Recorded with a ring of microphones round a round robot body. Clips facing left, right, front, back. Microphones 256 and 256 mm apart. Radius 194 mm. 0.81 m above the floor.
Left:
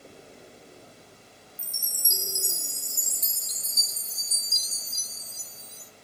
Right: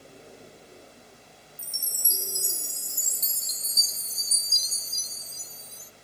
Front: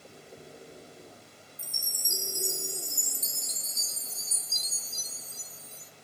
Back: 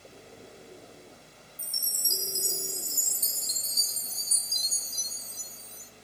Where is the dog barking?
I don't hear a dog barking.